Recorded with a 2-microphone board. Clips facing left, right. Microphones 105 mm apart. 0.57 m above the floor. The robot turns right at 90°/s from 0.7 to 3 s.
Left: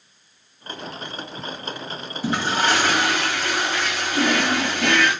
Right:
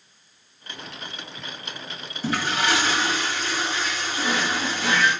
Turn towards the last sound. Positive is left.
turn(degrees=75)  # may be behind; listen again after turning